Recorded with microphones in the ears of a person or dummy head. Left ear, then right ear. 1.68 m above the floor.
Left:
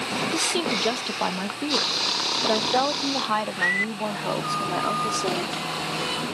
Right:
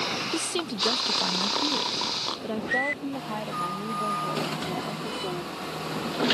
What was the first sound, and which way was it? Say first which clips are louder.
A woman speaking: left 6 dB; 15° left (ahead or behind).